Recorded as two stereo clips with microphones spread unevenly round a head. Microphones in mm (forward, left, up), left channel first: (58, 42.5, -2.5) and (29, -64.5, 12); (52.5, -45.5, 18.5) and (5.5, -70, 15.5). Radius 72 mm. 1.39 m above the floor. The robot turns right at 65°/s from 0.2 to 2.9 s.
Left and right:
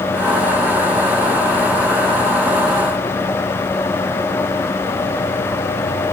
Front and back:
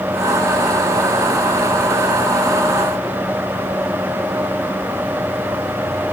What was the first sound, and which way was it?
Only background noise.